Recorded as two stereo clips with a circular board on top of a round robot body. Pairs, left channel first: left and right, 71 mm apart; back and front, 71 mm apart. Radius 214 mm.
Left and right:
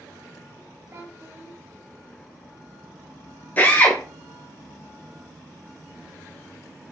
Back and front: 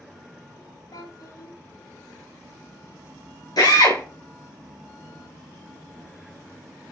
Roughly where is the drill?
Behind left.